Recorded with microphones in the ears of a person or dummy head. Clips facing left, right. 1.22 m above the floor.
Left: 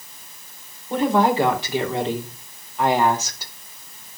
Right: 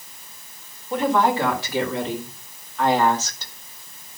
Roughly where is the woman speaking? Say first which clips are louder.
Left 2 dB; left.